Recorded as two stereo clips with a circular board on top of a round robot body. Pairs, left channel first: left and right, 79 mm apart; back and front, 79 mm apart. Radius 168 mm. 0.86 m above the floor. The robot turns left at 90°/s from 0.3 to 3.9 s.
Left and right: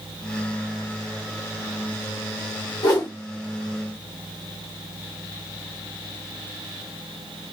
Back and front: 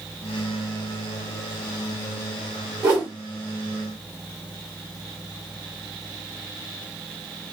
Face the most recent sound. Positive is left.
turn(degrees=-35)